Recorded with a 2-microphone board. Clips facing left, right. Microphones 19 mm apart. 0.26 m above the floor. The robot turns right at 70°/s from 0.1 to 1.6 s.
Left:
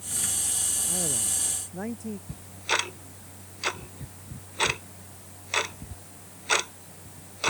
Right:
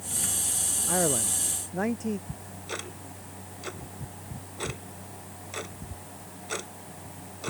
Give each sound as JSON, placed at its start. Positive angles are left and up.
{"t": 0.9, "sound": "a man speaking", "azimuth_deg": -85}
{"t": 2.3, "sound": "ticking", "side_deg": 60}